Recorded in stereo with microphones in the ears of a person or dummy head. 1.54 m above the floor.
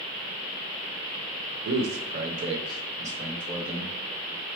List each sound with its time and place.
1.6 s a man speaking: 75° right (ahead or behind), 0.8 m; by 3.9 s 5° right (ahead or behind), 1.8 m